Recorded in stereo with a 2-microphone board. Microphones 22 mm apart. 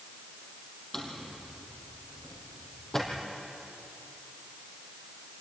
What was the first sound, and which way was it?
A drawer, 25° left (ahead or behind).